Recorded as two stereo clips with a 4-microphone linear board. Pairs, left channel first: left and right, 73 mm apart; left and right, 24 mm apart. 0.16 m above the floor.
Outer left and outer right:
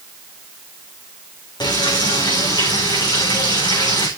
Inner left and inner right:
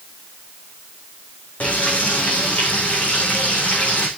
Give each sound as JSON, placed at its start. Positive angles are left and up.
{"t": 1.6, "sound": "frying", "side_deg": 75, "distance_m": 4.0}